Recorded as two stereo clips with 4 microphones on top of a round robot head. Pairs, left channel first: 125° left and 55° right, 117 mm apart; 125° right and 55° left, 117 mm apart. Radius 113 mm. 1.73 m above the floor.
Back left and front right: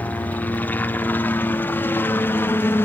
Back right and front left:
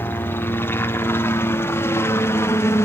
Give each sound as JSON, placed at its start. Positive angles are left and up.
{"t": 0.0, "sound": "a helicopter", "azimuth_deg": -175}